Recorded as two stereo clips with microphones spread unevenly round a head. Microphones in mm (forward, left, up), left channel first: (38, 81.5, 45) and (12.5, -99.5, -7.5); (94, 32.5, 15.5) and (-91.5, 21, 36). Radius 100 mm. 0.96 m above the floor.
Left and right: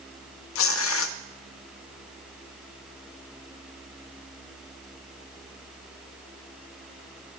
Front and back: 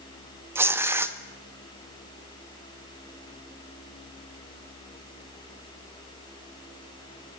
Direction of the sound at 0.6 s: 105° left.